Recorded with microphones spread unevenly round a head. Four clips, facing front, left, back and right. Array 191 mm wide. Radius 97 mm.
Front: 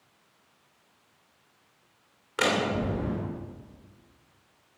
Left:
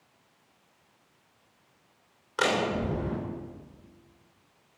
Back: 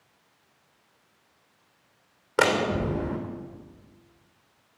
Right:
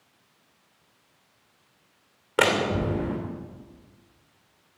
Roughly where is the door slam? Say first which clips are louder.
Right 4 dB, back 3 dB; behind right.